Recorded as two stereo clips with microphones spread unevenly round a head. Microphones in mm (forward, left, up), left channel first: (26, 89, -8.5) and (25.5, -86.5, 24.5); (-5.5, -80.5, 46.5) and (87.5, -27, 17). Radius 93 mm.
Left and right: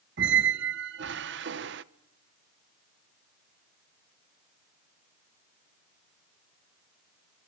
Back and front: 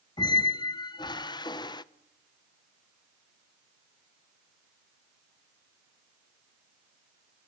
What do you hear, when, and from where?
0.2 s a squeak: 110° right, 0.7 m